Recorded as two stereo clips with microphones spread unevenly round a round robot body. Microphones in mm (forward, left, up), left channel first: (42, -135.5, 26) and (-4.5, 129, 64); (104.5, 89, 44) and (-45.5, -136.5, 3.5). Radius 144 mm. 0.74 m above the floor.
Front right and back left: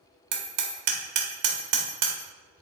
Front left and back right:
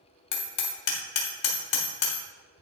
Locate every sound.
0.3 s hammering: 85° left, 1.6 m